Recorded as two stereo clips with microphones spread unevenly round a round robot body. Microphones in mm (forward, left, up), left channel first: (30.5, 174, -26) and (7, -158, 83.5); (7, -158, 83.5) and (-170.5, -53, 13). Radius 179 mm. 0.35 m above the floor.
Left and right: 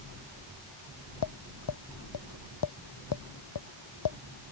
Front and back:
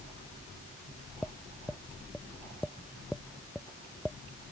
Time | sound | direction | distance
1.2 | tapping | 60° left | ?